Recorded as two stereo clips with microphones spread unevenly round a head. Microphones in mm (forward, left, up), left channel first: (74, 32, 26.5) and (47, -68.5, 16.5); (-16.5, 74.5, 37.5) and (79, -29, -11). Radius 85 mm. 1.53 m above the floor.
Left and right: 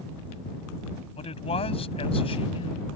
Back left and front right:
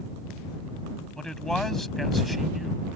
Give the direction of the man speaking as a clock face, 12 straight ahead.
10 o'clock.